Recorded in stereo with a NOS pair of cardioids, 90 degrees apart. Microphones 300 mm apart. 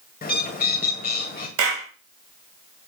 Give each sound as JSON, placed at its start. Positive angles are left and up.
{"t": 0.2, "sound": "a bird", "azimuth_deg": 30, "distance_m": 2.0}
{"t": 1.6, "sound": "a clap", "azimuth_deg": -50, "distance_m": 2.0}